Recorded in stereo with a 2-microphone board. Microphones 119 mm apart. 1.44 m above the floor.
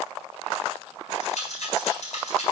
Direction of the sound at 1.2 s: 70° left (ahead or behind).